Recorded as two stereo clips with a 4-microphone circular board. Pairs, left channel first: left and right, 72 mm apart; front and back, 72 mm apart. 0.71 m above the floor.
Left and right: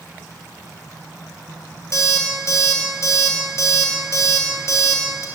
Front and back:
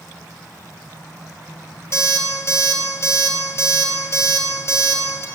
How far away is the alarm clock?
About 1.9 m.